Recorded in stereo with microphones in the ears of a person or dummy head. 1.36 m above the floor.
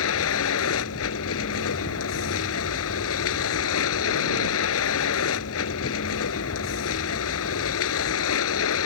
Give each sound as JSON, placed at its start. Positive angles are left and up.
{"t": 0.0, "sound": "a vehicle", "side_deg": 85}